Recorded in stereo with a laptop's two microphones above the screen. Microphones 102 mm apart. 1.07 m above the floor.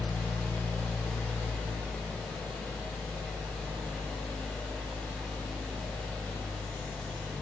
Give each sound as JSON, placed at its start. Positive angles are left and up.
{"t": 0.0, "sound": "a fan", "side_deg": 15, "distance_m": 3.0}